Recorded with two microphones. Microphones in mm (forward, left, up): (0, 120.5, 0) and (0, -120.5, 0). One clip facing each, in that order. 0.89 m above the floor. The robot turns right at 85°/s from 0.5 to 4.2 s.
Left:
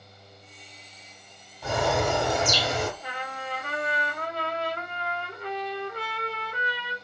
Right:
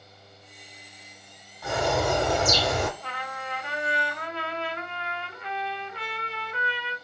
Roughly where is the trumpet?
Ahead.